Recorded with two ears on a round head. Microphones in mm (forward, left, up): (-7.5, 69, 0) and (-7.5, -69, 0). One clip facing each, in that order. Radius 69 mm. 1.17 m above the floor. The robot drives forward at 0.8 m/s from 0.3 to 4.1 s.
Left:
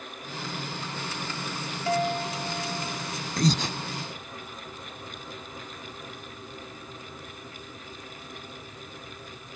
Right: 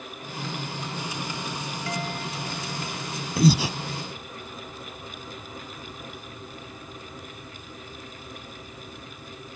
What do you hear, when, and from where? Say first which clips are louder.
1.9 s a guitar: left 8 dB; 25° left (ahead or behind); by 3.1 s 30° left (ahead or behind)
3.4 s breathing: right 5 dB; 5° right (ahead or behind); by 3.8 s 10° right (ahead or behind)